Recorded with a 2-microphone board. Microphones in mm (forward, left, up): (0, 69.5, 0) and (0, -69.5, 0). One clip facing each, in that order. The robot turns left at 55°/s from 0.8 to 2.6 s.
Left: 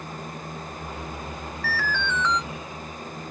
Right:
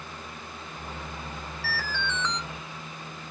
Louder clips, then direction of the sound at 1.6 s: Left 5 dB; 110° right.